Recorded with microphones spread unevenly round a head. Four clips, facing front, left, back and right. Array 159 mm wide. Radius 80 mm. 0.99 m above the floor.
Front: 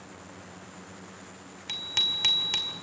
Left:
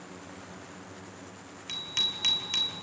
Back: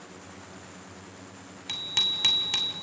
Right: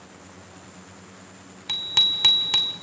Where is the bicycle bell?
95° right, 2.5 m.